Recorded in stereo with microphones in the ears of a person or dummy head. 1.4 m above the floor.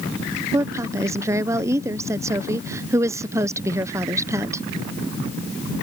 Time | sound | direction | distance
0.5 | a woman speaking | 10° right (ahead or behind) | ?